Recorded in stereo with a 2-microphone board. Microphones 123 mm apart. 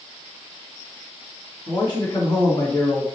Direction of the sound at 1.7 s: 35° left (ahead or behind).